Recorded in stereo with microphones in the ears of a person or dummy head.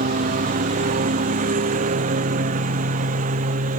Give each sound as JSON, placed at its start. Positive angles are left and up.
{"t": 0.0, "sound": "a lawn mower", "side_deg": -45}